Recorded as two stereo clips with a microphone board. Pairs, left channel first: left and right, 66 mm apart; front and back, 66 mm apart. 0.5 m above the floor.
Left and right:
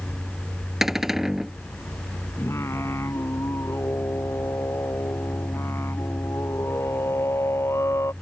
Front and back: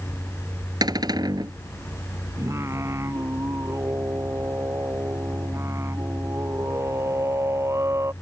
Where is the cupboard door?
175° right.